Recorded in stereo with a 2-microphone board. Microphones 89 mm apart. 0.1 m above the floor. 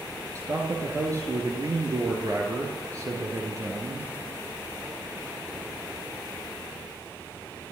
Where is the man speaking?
40° right (ahead or behind), 2 m.